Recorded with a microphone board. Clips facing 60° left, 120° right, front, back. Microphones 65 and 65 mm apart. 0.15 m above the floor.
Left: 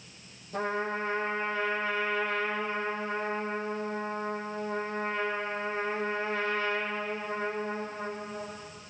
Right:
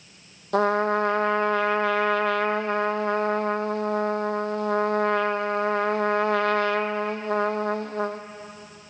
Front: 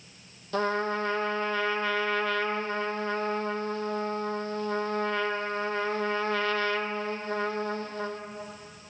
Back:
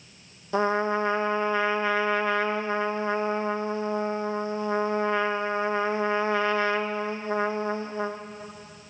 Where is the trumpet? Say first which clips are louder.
Right 10 dB, back 4 dB; 105° right, 1.0 m.